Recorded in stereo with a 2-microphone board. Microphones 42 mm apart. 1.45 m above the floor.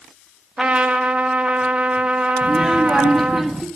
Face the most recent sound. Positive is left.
turn(degrees=0)  # may be behind; listen again after turning